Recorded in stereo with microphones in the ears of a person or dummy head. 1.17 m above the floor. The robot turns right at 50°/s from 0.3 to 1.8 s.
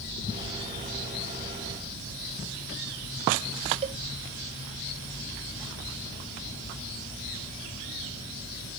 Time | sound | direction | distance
3.8 | a cowbell | 30° right (ahead or behind) | ?